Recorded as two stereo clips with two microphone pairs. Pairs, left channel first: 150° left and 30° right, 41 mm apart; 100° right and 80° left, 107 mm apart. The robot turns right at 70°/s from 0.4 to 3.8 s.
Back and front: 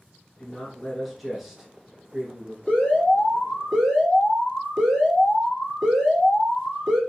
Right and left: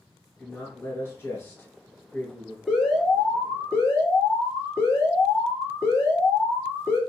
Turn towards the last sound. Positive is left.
turn(degrees=-125)